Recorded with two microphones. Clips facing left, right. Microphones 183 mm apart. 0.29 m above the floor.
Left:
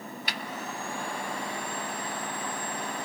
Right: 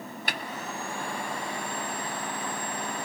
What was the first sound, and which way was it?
A snare drum, 50° right (ahead or behind).